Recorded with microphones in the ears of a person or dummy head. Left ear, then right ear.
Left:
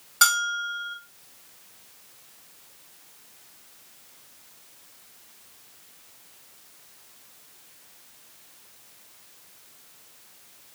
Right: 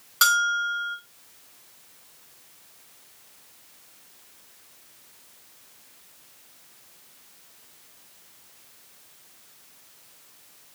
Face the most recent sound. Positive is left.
turn(degrees=-10)  # may be behind; listen again after turning